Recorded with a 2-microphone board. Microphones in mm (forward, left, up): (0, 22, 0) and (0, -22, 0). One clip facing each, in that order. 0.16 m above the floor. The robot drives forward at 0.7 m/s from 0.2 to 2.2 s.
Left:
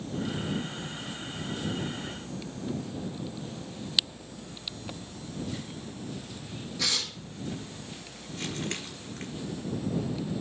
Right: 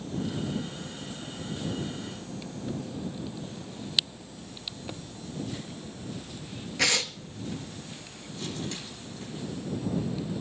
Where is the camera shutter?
40° left (ahead or behind), 1.6 m.